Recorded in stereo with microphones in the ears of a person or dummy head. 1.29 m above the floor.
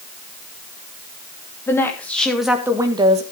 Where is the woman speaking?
15° left (ahead or behind), 2.5 m; by 3.2 s 35° right (ahead or behind), 1.4 m.